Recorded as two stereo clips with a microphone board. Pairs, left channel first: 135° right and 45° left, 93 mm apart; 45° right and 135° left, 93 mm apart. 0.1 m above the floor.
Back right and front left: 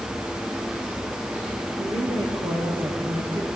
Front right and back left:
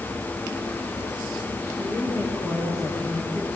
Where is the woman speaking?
60° left, 8 m.